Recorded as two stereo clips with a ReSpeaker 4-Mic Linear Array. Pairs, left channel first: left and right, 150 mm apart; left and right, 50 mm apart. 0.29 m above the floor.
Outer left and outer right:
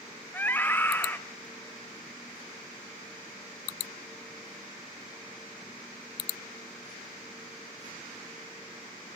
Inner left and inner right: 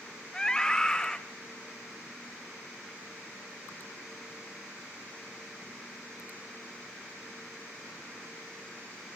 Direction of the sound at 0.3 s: 15° left (ahead or behind).